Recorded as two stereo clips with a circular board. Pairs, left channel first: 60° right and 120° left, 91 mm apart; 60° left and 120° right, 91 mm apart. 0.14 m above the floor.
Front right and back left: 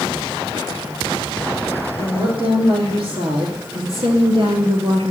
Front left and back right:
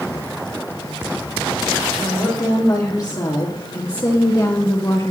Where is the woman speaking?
110° left, 6 m; by 5.1 s 105° left, 2.5 m.